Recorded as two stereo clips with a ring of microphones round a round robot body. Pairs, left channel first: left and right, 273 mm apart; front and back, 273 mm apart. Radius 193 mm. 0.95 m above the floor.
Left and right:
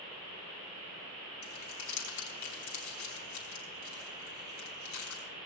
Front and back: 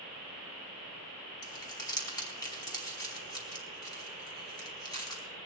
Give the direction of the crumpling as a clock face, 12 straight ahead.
9 o'clock.